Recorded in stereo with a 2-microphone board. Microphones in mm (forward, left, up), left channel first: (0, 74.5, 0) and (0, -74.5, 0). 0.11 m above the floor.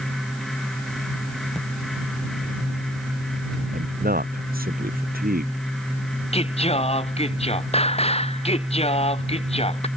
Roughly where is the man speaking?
Right.